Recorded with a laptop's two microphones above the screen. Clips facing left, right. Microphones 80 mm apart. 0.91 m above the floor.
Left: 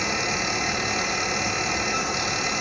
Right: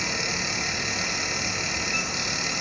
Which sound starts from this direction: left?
A fan, at 0.0 s.